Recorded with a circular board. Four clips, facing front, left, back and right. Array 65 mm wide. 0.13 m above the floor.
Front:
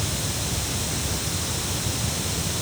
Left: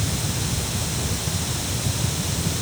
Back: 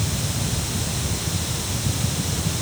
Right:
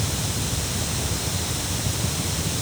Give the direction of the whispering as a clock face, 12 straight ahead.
I don't hear whispering.